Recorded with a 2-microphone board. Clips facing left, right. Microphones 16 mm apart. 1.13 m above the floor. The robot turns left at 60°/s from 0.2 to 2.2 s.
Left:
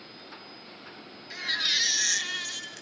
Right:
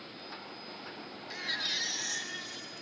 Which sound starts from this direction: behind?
A baby crying, at 1.3 s.